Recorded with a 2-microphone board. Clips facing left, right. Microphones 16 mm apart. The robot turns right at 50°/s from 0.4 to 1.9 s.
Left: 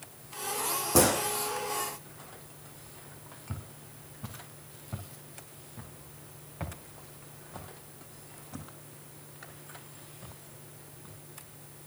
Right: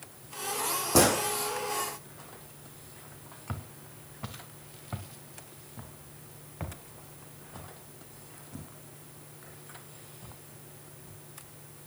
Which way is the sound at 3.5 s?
55° right (ahead or behind).